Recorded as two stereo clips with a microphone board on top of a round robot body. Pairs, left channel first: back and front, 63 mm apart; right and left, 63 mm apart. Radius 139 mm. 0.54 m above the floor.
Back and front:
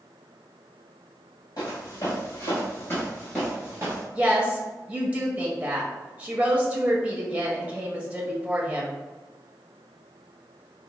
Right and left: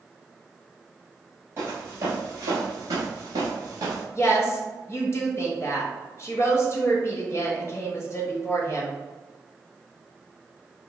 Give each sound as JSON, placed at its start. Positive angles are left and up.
{"t": 1.6, "sound": "footsteps", "azimuth_deg": 150, "distance_m": 1.2}
{"t": 4.2, "sound": "a woman speaking", "azimuth_deg": -65, "distance_m": 0.8}